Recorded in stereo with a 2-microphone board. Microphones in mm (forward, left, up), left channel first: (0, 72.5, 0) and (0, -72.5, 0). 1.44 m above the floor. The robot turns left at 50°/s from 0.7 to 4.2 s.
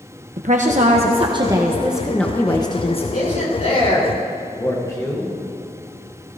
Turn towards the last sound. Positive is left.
turn(degrees=25)